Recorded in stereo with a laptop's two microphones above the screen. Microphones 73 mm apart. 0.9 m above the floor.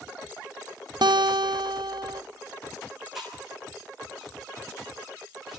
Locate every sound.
1.0 s a guitar: 80° right, 0.7 m
3.1 s chewing: centre (ahead or behind), 6 m